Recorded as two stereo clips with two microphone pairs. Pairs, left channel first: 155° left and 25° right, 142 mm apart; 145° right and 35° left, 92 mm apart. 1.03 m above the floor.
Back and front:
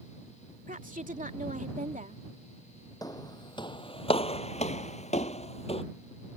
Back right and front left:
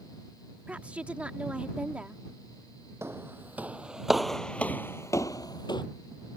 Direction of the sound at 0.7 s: 40° right.